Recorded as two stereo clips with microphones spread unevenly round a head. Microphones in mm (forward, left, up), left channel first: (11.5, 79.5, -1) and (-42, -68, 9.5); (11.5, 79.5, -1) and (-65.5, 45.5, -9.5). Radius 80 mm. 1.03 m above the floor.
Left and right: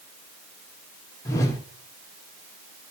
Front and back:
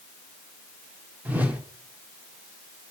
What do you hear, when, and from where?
1.2 s a whoosh: 140° left, 1.7 m